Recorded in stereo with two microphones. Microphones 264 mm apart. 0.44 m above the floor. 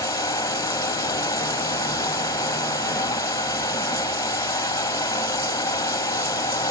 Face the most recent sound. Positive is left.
turn(degrees=15)  # may be behind; listen again after turning